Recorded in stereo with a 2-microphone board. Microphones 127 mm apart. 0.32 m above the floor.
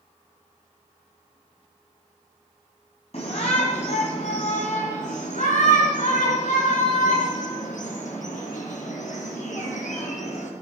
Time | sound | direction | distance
3.1 | a shout | 55° left (ahead or behind) | 2.5 m